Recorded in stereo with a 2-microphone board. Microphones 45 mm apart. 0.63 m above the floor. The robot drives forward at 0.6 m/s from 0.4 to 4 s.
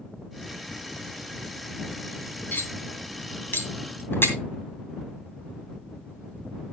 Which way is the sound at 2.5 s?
40° left (ahead or behind).